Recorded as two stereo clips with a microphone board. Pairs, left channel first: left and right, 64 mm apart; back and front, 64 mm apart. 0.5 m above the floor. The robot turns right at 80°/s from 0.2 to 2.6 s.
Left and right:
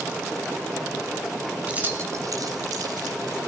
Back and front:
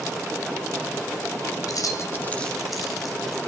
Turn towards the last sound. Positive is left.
turn(degrees=-90)